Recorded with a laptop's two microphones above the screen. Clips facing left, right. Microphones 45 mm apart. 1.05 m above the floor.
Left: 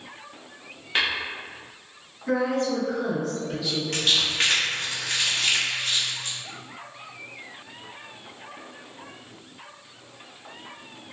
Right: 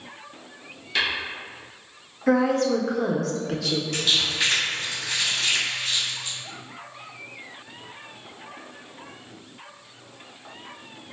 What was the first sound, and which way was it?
Tapping, 35° left (ahead or behind).